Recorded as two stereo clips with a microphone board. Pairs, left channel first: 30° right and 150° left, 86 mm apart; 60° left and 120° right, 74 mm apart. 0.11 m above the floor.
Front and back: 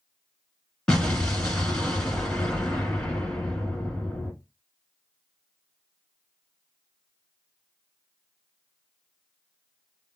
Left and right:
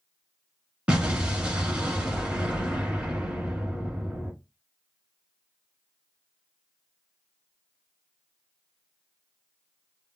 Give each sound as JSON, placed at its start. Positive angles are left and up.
{"t": 0.9, "sound": "an explosion", "azimuth_deg": -90, "distance_m": 1.4}